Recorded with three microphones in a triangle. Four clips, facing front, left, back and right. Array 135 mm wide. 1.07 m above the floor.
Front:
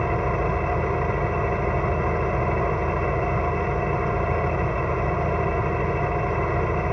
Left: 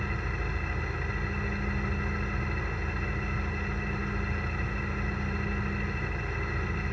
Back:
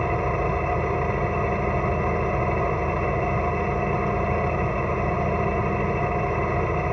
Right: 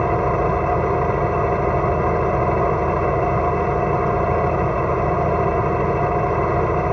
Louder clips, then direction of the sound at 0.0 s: Right 18 dB, even; 90° right.